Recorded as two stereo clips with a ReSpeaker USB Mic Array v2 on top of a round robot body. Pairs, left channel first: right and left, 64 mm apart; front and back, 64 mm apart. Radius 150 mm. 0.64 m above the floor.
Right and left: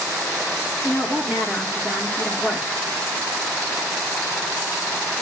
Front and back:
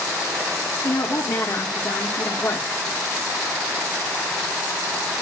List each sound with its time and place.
0.8 s a woman speaking: 15° left, 2.5 m